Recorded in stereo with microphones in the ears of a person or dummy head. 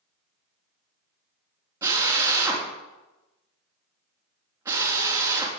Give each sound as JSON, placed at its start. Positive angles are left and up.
{"t": 1.8, "sound": "a drill", "side_deg": -20, "distance_m": 3.0}